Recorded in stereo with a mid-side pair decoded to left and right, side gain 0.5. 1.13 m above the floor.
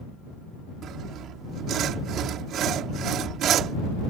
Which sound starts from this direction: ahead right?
Sawing, at 0.8 s.